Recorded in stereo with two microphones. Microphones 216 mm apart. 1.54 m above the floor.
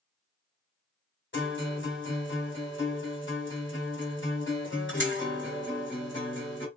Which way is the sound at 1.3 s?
60° left (ahead or behind).